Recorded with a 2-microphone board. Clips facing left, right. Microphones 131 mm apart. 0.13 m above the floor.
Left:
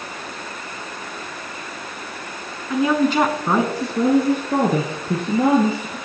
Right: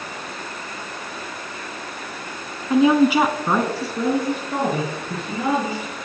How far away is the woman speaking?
About 1.2 m.